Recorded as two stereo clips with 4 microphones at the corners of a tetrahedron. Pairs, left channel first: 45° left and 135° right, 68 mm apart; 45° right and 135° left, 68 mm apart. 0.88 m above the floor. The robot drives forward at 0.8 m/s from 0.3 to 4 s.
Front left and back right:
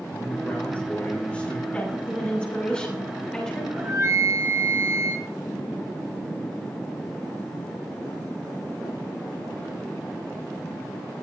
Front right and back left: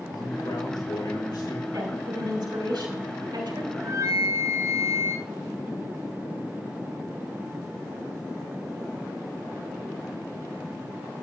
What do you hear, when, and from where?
0.1 s a man speaking: 25° right, 4.5 m; by 1.6 s 30° right, 3.5 m
1.7 s a woman speaking: 115° left, 6 m; by 3.7 s 125° left, 6.5 m
3.8 s a flute: 175° left, 1.2 m